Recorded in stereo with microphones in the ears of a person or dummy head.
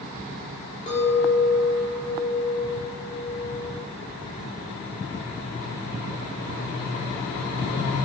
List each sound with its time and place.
0.9 s a clink: 25° left (ahead or behind), 2.5 m